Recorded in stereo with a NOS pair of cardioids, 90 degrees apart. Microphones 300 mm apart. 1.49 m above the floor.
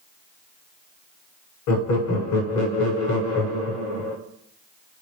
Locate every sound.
1.7 s laughter: 70° left, 1.1 m